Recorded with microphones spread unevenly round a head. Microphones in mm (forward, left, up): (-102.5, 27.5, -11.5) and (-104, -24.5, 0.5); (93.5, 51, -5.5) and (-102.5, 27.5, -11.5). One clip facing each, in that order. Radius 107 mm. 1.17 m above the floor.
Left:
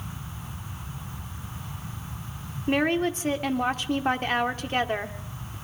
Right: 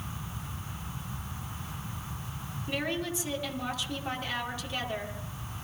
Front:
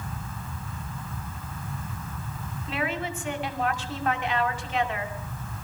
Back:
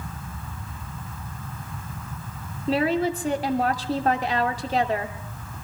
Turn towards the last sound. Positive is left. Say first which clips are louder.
# left 9 dB, back 9 dB
turn(degrees=130)